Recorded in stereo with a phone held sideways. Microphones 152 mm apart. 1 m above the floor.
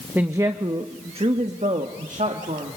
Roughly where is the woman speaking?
Centre.